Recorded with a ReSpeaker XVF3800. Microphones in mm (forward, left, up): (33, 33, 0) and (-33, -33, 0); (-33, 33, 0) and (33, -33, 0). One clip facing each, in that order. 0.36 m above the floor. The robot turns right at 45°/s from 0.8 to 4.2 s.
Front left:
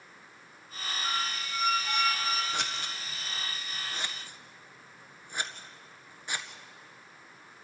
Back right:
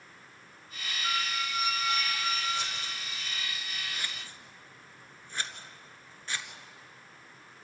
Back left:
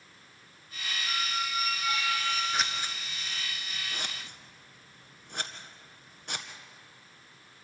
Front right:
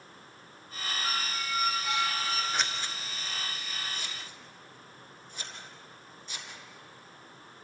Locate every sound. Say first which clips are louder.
1.0 s a squeak: back right 2 dB, back left 2 dB; 25° right, 2.0 m; by 2.4 s 35° left, 2.0 m
2.5 s scissors: front left 1 dB, back left 1 dB; 45° left, 1.6 m; by 6.5 s 120° left, 1.6 m